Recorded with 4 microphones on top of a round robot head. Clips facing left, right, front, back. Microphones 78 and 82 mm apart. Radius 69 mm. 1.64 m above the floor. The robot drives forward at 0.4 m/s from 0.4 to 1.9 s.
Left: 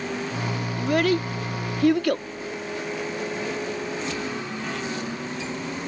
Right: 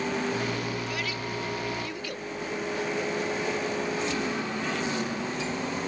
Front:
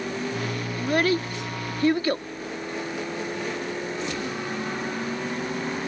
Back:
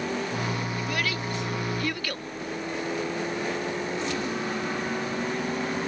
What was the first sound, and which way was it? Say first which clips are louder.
A child speaking: left 11 dB, front 7 dB; 55° left.